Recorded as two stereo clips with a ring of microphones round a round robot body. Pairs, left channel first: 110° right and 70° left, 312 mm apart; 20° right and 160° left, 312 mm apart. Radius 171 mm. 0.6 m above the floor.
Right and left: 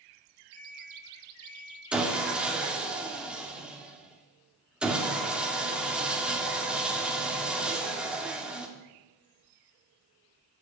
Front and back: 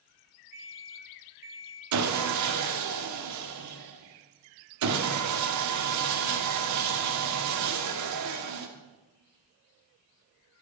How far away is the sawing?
About 2 m.